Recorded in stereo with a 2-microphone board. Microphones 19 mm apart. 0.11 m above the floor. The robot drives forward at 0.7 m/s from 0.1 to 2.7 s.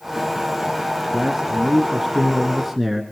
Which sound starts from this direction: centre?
A man speaking, at 1.1 s.